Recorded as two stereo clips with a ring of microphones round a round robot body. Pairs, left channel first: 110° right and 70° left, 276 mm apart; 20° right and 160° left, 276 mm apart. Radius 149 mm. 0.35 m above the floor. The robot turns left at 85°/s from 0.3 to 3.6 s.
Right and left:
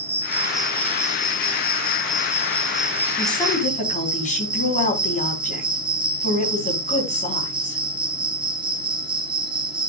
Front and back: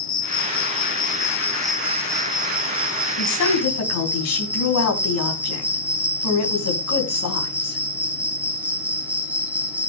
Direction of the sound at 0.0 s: 5° left.